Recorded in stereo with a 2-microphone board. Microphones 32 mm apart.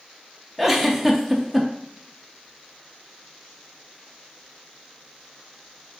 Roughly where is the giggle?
Centre.